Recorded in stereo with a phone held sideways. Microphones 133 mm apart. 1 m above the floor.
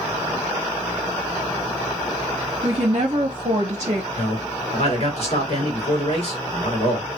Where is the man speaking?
50° left (ahead or behind), 2 m.